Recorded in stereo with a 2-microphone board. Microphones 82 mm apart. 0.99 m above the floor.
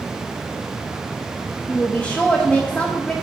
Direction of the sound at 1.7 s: 15° left (ahead or behind).